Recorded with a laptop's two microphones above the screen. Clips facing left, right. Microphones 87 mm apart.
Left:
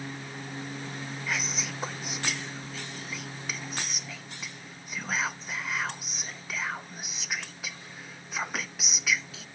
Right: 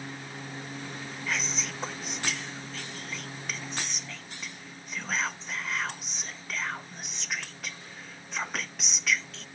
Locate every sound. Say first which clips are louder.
1.3 s whispering: right 1 dB; 5° left (ahead or behind)